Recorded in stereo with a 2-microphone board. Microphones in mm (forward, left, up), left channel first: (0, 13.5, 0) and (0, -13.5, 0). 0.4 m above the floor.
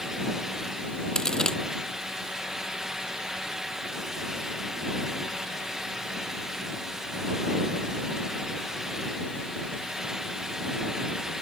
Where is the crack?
25° left (ahead or behind).